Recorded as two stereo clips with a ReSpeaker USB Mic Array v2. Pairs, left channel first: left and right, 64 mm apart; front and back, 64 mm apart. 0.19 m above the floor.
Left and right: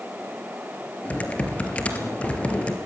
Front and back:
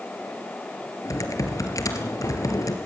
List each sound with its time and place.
1.1 s typing on a keyboard: 20° left, 3 m